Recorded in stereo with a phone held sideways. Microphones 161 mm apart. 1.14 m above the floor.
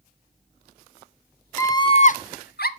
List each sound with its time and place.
1.6 s a scream: 20° left (ahead or behind), 0.9 m; by 2.7 s 70° left (ahead or behind), 0.7 m